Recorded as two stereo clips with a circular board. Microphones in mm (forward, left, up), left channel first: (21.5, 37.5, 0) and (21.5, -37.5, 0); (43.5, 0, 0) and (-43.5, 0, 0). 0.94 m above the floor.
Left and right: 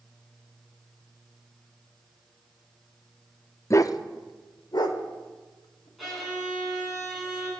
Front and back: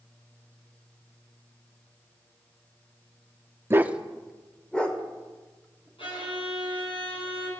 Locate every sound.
3.7 s a dog barking: 125° left, 0.5 m; by 5.9 s 70° left, 2.5 m
6.0 s a violin: straight ahead, 7 m